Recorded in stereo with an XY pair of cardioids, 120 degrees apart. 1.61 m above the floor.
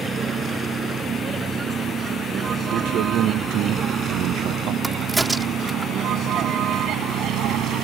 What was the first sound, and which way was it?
A vehicle, 35° right.